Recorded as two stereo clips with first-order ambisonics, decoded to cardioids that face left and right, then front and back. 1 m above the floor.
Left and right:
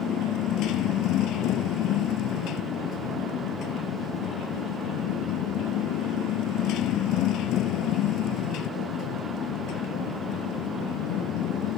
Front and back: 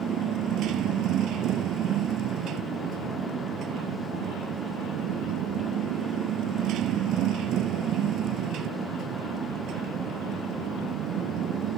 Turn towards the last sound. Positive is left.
turn(degrees=135)